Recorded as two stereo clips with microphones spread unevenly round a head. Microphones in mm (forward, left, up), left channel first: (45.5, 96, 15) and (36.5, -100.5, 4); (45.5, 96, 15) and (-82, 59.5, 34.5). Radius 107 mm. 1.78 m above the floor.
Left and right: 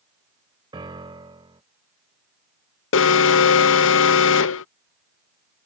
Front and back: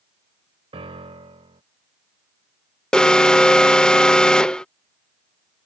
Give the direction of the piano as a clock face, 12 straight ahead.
5 o'clock.